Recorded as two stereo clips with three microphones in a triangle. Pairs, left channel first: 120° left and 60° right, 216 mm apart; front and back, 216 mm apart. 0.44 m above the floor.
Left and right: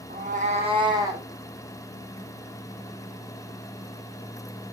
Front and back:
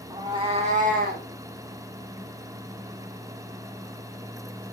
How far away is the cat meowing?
About 2.0 m.